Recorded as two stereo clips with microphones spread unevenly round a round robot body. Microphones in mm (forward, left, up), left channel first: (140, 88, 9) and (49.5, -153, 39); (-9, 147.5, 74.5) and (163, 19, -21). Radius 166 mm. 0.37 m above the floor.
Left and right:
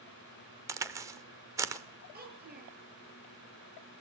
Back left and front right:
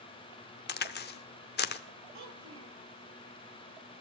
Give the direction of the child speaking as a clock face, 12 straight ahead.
2 o'clock.